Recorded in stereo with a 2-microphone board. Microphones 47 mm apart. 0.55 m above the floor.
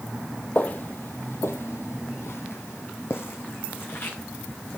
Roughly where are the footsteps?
Left.